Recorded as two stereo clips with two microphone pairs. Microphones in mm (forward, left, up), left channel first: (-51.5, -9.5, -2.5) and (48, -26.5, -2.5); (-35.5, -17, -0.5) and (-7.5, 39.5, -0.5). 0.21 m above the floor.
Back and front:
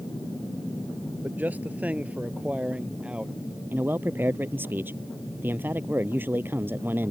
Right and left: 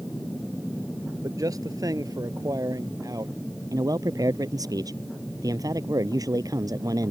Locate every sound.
1.2 s a man speaking: 60° left; by 3.4 s 70° left
3.7 s a man speaking: 60° left